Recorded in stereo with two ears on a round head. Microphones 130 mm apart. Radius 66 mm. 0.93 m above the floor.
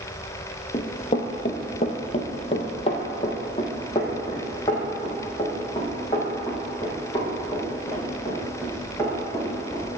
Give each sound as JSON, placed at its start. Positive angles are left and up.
{"t": 0.7, "sound": "running footsteps", "side_deg": 35, "distance_m": 1.3}